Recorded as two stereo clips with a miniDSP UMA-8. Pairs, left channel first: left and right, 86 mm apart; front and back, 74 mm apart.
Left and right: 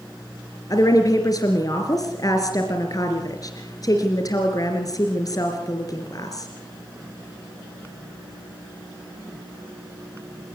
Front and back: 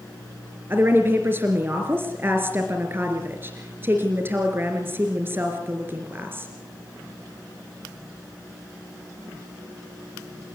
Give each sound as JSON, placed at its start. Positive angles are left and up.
{"t": 0.7, "sound": "a woman speaking", "azimuth_deg": 125, "distance_m": 3.0}